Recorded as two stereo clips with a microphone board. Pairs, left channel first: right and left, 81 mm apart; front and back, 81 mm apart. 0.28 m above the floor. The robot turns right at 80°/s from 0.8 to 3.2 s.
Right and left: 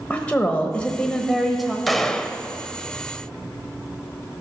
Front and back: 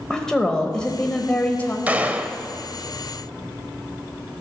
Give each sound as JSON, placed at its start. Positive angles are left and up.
{"t": 0.1, "sound": "a woman speaking", "azimuth_deg": -60, "distance_m": 0.9}
{"t": 1.9, "sound": "a gunshot", "azimuth_deg": 180, "distance_m": 0.6}